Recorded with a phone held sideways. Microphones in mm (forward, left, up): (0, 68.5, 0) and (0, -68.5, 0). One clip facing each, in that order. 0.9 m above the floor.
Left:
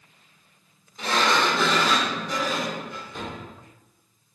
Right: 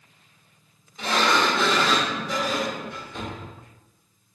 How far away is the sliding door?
About 1.3 m.